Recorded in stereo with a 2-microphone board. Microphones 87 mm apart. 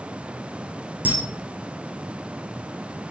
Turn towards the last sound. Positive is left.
turn(degrees=-15)  # may be behind; listen again after turning